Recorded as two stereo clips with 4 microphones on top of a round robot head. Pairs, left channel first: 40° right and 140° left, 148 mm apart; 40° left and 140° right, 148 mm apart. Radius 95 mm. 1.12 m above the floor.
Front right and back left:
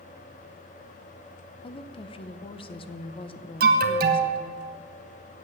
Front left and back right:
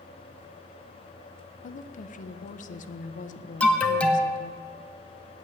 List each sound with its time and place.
1.6 s a woman speaking: 10° left, 0.7 m
3.6 s an alarm: 125° left, 1.0 m